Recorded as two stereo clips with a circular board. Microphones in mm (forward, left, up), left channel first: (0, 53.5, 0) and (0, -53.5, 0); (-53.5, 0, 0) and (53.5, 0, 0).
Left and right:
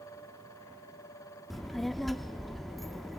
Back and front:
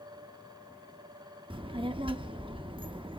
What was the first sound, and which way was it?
A child speaking, straight ahead.